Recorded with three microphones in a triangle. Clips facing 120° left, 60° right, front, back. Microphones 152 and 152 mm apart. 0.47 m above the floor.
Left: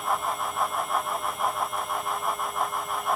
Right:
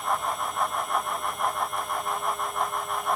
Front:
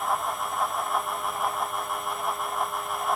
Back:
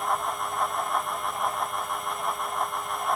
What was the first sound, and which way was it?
Only background noise.